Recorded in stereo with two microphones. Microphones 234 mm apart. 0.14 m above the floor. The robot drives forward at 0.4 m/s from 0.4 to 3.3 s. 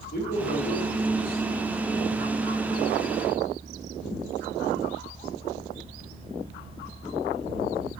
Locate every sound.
0.1 s a man speaking: 45° left (ahead or behind), 3 m; by 2.3 s 35° left (ahead or behind), 3.5 m